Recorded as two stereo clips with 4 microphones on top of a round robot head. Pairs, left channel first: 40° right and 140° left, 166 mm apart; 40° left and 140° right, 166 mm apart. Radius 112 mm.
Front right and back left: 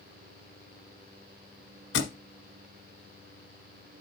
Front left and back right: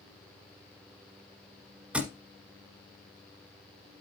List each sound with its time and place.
1.9 s a thud: 60° right, 1.1 m